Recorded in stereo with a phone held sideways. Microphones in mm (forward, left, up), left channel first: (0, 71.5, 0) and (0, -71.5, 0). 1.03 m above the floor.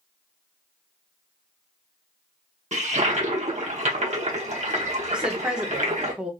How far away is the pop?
I don't hear a pop.